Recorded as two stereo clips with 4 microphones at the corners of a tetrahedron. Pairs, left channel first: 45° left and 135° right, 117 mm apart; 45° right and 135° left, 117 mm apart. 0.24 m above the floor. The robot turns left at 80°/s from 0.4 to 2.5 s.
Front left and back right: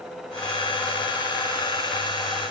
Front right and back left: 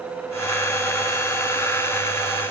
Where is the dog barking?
No dog barking in this recording.